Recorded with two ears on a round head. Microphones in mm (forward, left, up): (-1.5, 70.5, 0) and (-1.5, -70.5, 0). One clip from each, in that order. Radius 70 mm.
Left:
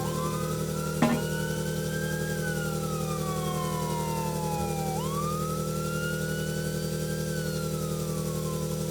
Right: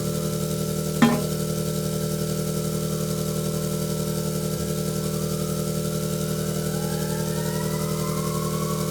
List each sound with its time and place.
0.0 s an engine running: 45° right (ahead or behind), 3 m
1.0 s a snare drum: 85° right, 4.5 m